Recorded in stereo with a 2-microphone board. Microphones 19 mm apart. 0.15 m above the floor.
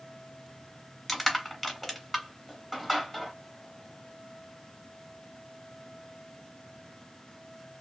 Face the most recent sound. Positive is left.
turn(degrees=10)  # may be behind; listen again after turning